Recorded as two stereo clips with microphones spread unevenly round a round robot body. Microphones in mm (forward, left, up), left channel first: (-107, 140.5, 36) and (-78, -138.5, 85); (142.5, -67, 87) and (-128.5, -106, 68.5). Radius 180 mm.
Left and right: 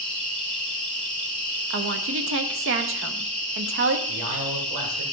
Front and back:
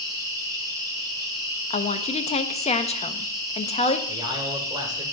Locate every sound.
0.0 s an insect: 150° left, 1.8 m
1.7 s a woman speaking: 55° right, 0.8 m
4.1 s a man speaking: 95° right, 2.5 m